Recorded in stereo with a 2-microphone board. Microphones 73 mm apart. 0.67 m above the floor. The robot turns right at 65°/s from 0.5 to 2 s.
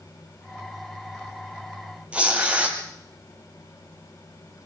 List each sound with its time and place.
2.1 s tearing paper: 15° right (ahead or behind), 5 m